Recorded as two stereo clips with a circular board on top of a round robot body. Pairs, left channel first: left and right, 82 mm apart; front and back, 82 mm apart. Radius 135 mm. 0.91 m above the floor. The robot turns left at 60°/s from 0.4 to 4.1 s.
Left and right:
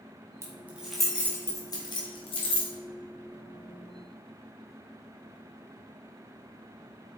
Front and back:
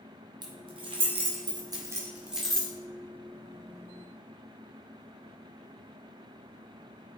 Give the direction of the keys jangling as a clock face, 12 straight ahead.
5 o'clock.